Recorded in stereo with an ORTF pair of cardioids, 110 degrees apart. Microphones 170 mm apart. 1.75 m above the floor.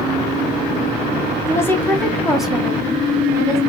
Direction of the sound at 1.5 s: 15° left.